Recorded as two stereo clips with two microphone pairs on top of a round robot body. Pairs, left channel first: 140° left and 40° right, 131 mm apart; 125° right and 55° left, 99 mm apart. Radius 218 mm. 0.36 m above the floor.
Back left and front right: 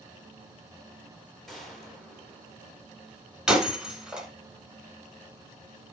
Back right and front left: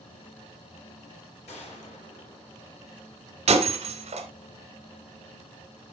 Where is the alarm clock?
I don't hear an alarm clock.